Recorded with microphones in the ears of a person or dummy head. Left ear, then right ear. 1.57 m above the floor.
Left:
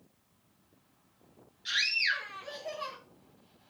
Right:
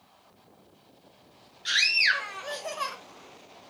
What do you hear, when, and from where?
1.6 s a scream: 25° right (ahead or behind), 2.5 m; by 3.0 s 50° right (ahead or behind), 1.7 m